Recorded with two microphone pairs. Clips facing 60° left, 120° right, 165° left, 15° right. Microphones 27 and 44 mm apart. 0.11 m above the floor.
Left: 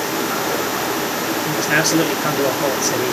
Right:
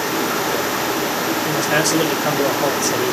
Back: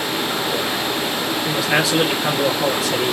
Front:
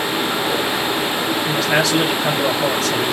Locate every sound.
1.5 s a man speaking: 80° left, 2 m